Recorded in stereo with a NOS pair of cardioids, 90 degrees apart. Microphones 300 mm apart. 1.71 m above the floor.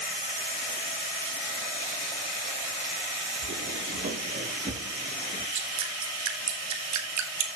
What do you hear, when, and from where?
3.4 s footsteps: 35° right, 6 m; by 5.5 s 20° right, 5.5 m
5.5 s dripping: 70° right, 3 m